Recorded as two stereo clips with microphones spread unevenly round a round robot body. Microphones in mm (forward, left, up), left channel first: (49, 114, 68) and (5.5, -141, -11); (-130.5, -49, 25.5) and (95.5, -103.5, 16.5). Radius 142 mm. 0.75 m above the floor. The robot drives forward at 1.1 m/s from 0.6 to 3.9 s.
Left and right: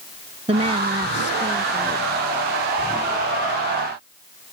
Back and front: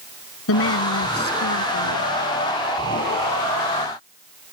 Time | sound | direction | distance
0.5 | a woman speaking | 170° right | ?